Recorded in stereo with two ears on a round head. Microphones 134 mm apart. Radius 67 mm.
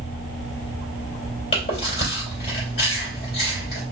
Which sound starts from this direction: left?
Chewing, at 1.5 s.